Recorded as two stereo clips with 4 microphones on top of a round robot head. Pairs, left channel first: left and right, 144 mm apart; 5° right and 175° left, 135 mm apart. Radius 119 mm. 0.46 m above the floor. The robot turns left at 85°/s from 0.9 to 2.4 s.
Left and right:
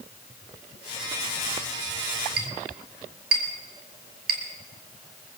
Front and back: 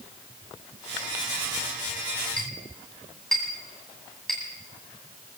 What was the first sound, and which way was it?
A clink, 85° right.